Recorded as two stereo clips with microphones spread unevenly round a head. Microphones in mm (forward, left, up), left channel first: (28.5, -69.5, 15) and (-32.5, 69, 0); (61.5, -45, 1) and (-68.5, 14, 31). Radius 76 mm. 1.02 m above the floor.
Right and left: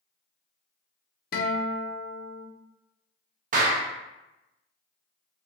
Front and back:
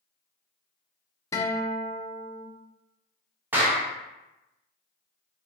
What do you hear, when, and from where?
1.3 s a guitar: 85° right, 0.7 m
3.5 s a clap: 75° left, 0.9 m